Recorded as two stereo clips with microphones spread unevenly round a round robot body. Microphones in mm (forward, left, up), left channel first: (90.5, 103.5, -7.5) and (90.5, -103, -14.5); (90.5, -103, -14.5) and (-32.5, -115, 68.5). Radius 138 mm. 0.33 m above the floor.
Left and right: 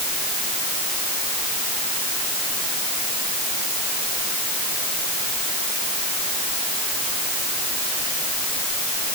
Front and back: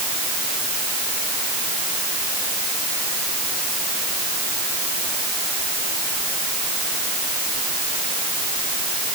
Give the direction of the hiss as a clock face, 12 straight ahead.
I don't hear a hiss.